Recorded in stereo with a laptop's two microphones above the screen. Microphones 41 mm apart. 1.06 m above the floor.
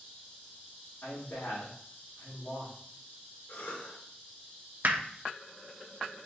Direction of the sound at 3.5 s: 70° left (ahead or behind).